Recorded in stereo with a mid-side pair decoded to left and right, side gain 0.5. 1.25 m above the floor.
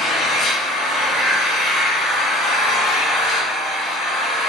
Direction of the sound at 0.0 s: 70° left.